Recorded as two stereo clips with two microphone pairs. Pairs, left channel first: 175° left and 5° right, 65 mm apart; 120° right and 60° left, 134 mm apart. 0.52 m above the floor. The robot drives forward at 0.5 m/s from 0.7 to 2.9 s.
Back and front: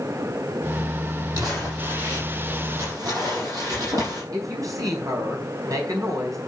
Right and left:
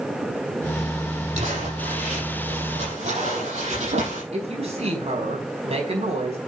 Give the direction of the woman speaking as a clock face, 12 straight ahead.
11 o'clock.